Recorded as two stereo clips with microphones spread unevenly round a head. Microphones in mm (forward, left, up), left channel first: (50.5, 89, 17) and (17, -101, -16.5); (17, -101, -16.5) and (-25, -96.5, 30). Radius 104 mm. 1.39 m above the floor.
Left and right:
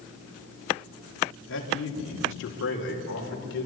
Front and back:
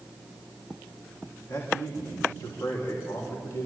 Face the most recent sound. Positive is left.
turn(degrees=50)